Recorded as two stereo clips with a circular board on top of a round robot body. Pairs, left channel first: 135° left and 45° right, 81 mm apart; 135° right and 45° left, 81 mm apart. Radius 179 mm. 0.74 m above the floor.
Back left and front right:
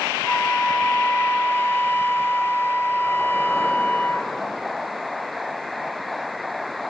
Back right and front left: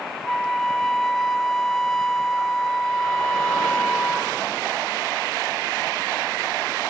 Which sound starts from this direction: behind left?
A flute, at 0.2 s.